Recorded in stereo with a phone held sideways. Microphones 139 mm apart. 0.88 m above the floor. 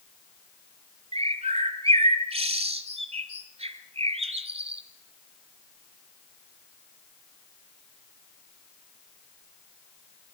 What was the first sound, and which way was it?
A bird, 45° right (ahead or behind).